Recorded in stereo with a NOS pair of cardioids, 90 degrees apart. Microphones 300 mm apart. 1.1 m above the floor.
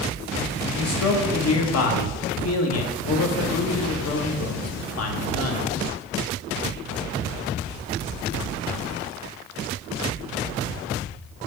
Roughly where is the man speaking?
Ahead left.